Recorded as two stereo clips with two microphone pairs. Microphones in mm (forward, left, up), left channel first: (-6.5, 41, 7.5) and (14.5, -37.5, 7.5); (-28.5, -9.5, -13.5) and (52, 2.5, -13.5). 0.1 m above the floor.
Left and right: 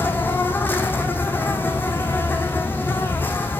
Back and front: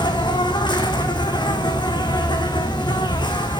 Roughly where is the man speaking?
No man speaking in this recording.